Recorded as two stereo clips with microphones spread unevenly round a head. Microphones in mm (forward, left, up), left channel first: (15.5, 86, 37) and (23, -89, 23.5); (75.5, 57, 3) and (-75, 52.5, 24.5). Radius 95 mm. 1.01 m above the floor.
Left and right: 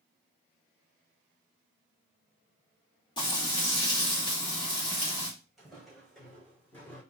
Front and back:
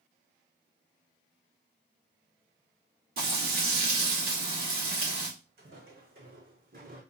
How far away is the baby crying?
I don't hear a baby crying.